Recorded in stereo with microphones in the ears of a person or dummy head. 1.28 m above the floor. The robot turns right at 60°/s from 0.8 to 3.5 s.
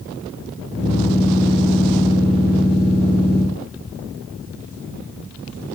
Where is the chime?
I don't hear a chime.